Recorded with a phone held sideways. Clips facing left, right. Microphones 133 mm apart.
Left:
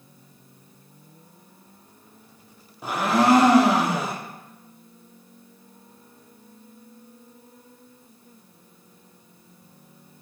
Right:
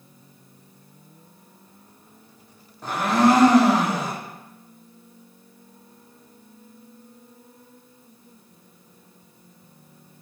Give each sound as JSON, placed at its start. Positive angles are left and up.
{"t": 2.8, "sound": "a blender", "side_deg": 10, "distance_m": 0.6}